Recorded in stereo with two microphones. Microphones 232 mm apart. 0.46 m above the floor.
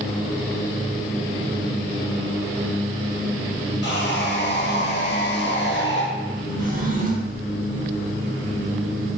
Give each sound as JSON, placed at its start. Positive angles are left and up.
{"t": 3.8, "sound": "sawing", "side_deg": 50, "distance_m": 0.7}
{"t": 6.6, "sound": "a drawer", "side_deg": -35, "distance_m": 0.6}